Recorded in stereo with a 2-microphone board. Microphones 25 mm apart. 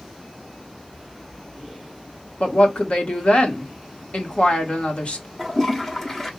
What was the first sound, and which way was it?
A woman speaking, 50° left (ahead or behind).